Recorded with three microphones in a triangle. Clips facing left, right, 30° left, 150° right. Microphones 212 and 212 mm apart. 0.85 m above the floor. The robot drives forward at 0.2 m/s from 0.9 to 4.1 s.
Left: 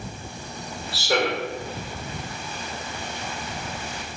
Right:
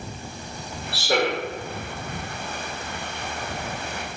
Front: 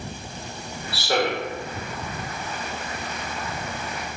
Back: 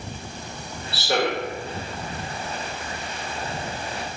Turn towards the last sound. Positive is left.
turn(degrees=-115)